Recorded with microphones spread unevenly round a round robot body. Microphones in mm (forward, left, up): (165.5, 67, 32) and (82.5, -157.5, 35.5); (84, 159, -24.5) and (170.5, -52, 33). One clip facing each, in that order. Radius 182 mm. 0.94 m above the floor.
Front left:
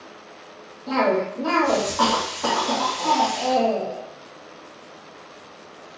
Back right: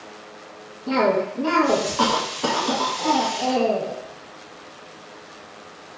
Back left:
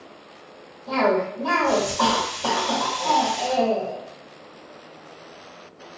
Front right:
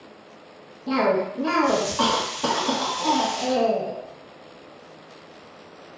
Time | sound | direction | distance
0.9 | a cough | 55° right | 0.9 m